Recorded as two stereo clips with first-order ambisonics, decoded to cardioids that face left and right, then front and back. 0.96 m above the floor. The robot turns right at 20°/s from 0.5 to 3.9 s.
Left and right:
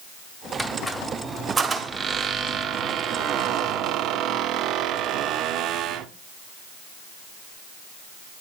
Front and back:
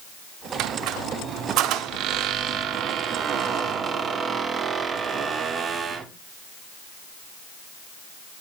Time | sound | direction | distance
0.6 | a squeak | straight behind | 0.7 m